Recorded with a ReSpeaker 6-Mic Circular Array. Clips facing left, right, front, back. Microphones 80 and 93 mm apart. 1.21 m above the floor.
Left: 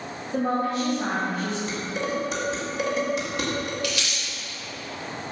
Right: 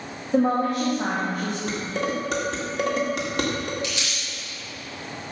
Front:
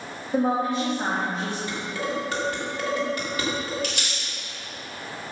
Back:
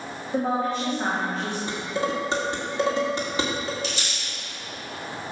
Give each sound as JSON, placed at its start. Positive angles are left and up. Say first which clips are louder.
{"t": 0.3, "sound": "a woman speaking", "louder": "right 4 dB, front 2 dB", "azimuth_deg": -70, "distance_m": 2.0}
{"t": 1.7, "sound": "dishes clattering", "louder": "right 1 dB, back 2 dB", "azimuth_deg": -115, "distance_m": 2.0}
{"t": 3.8, "sound": "crumpling", "louder": "left 2 dB, even", "azimuth_deg": -25, "distance_m": 4.0}